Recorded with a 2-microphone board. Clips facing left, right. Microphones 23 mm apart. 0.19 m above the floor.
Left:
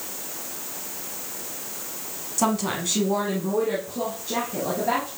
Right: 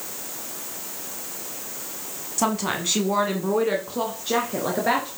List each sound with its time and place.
2.4 s a woman speaking: 5° right (ahead or behind), 1.4 m; by 5.1 s 60° right (ahead or behind), 2.5 m